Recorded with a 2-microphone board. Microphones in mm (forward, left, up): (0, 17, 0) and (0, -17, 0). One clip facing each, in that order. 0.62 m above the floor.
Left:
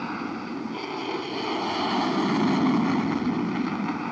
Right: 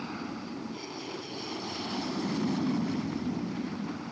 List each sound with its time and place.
0.0 s an aircraft: 45° left (ahead or behind); by 4.1 s 75° left (ahead or behind)